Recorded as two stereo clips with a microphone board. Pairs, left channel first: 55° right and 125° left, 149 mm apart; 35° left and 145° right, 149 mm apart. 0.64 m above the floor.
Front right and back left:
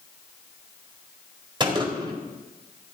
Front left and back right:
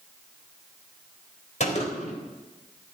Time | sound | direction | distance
1.6 | a gunshot | 65° left | 4 m